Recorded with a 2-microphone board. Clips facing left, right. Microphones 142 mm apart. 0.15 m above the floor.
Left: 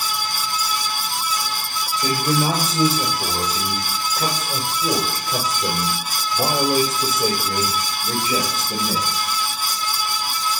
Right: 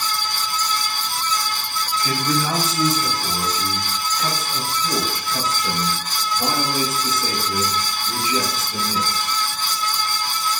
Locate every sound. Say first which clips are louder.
2.0 s a man speaking: left 3 dB; 60° left (ahead or behind), 9 m; by 9.3 s 80° left, 9.5 m